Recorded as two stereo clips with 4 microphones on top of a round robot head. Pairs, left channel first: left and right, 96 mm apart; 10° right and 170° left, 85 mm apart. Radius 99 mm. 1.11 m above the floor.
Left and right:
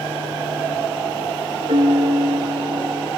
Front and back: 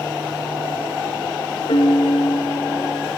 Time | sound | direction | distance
1.7 | a piano | 45° right | 1.3 m